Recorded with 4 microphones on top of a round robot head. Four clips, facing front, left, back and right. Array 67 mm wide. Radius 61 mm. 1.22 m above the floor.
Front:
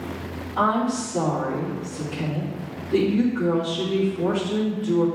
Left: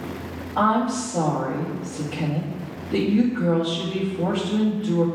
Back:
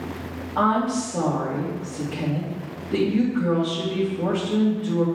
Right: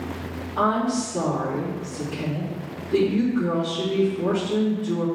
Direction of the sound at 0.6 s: 145° left.